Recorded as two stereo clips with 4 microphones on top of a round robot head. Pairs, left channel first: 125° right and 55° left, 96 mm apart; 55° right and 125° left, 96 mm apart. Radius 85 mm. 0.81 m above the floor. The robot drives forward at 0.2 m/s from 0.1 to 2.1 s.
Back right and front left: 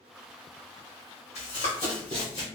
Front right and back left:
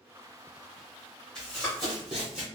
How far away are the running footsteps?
About 1.5 m.